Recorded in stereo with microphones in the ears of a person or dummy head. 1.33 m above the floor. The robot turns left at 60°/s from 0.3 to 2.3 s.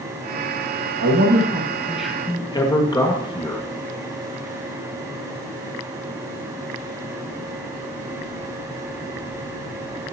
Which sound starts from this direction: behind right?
A man speaking, at 1.0 s.